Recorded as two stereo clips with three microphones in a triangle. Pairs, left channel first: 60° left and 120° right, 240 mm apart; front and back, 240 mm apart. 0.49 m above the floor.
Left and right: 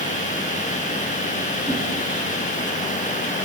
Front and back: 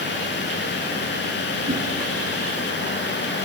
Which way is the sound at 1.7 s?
140° left.